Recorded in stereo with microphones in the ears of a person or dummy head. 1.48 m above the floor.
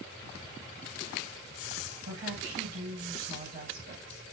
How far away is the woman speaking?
About 5.5 m.